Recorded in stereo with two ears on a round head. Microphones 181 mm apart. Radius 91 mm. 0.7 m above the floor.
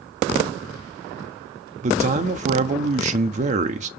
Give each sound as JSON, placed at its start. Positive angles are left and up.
{"t": 1.8, "sound": "a man speaking", "side_deg": -40, "distance_m": 1.2}